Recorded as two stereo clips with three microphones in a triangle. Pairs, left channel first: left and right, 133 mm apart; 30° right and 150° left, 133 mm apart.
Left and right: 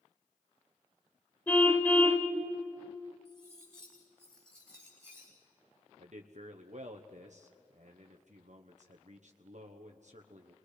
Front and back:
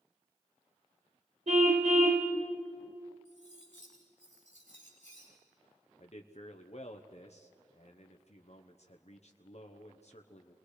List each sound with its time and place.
1.5 s a car horn: 165° left, 2.5 m
3.2 s cutlery clinking: 175° left, 7 m
6.0 s a man speaking: 65° right, 1.1 m